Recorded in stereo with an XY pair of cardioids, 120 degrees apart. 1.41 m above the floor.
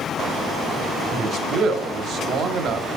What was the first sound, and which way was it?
A man speaking, 55° right.